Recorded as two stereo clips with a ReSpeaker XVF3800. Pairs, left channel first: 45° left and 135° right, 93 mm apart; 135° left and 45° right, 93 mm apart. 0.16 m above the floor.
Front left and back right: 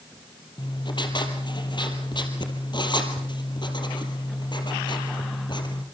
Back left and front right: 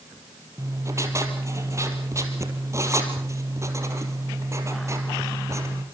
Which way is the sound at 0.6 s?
10° left.